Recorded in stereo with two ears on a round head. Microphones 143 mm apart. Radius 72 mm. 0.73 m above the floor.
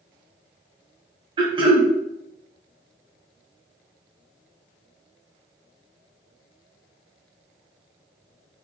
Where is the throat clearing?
30° right (ahead or behind), 0.8 m.